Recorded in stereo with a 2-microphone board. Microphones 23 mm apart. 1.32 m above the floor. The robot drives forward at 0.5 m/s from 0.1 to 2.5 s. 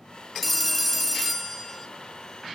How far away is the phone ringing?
About 0.5 m.